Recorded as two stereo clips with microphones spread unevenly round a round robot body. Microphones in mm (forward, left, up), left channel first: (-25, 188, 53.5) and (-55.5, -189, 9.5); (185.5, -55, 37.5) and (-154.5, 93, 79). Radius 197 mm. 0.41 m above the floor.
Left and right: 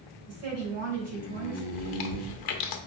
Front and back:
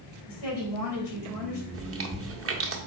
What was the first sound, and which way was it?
A woman speaking, 55° right.